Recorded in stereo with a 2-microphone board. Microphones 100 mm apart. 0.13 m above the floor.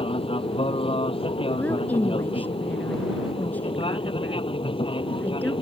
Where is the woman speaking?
15° left (ahead or behind).